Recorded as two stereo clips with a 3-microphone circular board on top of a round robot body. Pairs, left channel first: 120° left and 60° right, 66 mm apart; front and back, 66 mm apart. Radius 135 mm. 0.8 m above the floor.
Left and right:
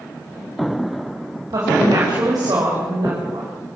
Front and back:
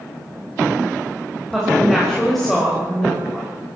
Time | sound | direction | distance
1.5 | a woman speaking | 90° right | 5.5 m